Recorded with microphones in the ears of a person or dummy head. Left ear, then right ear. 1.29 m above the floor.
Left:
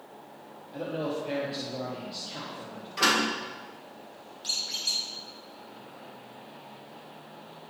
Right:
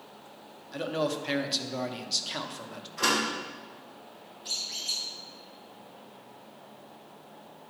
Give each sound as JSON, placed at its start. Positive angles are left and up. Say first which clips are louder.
{"t": 0.7, "sound": "a man speaking", "louder": "right 2 dB", "side_deg": -55, "distance_m": 1.1}
{"t": 3.0, "sound": "a door slam", "louder": "left 2 dB", "side_deg": 55, "distance_m": 2.5}
{"t": 4.4, "sound": "a squeak", "louder": "left 3 dB", "side_deg": 75, "distance_m": 2.5}